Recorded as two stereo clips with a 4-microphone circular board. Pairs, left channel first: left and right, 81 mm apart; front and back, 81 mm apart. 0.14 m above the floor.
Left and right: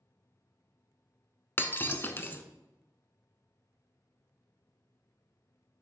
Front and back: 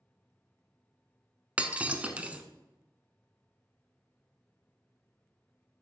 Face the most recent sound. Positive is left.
turn(degrees=120)